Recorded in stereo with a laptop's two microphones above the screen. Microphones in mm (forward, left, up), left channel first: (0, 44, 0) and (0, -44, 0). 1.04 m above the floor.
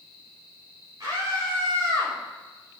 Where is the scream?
40° right (ahead or behind), 4 m.